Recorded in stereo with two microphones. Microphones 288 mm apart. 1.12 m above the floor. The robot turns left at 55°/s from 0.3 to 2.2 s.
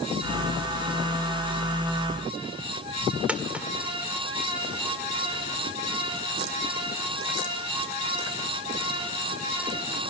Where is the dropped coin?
5° right (ahead or behind), 1.8 m.